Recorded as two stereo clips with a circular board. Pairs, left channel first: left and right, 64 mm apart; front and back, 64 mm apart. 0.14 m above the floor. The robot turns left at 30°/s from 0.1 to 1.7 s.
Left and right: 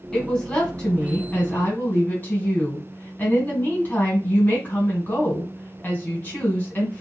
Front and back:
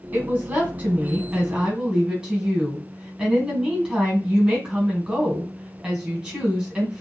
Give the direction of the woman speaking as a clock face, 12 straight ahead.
6 o'clock.